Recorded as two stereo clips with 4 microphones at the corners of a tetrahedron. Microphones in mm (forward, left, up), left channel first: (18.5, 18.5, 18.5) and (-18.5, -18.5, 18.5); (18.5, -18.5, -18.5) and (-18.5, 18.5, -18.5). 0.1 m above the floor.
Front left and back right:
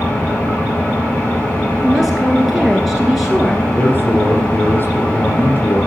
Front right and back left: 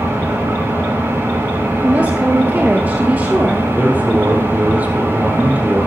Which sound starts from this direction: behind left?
A woman speaking, at 1.8 s.